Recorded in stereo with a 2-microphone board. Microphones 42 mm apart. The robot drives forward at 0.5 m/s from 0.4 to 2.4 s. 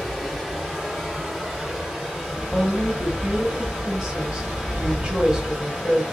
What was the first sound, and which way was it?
Running water, centre (ahead or behind).